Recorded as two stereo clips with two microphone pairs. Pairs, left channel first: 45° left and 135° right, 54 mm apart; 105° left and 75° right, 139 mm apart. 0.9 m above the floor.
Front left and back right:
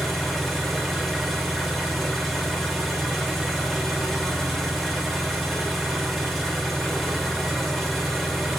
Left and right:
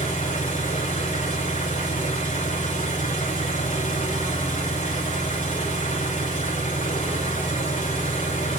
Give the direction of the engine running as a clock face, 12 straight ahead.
8 o'clock.